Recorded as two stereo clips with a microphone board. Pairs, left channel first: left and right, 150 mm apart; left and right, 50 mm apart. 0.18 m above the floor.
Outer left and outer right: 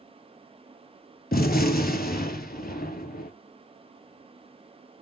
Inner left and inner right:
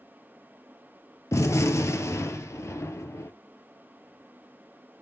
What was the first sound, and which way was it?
A gunshot, 80° left.